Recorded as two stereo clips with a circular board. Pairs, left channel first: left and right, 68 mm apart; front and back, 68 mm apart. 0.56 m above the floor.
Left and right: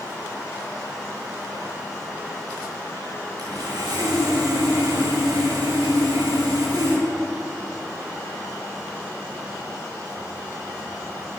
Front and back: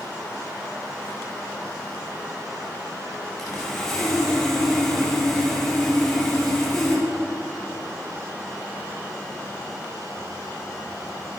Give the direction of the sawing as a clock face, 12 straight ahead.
3 o'clock.